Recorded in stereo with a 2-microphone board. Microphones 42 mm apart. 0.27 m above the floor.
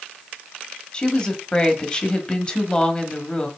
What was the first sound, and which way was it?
A woman speaking, 20° left (ahead or behind).